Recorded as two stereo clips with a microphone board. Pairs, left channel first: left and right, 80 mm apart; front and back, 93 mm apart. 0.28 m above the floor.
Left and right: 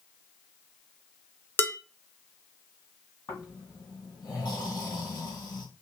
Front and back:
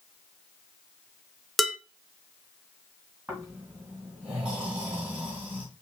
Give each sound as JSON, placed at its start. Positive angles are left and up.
{"t": 1.6, "sound": "dishes clattering", "azimuth_deg": 90, "distance_m": 0.6}
{"t": 3.3, "sound": "snoring", "azimuth_deg": 110, "distance_m": 3.0}